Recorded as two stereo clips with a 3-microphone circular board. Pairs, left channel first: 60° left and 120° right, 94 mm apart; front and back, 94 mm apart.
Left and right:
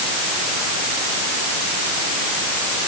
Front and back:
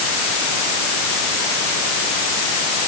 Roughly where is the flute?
I don't hear a flute.